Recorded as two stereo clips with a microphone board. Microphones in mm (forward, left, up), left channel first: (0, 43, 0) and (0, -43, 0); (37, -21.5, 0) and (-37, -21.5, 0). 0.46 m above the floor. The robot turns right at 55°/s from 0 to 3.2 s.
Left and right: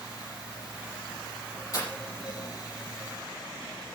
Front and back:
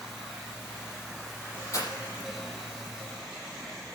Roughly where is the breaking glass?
Ahead left.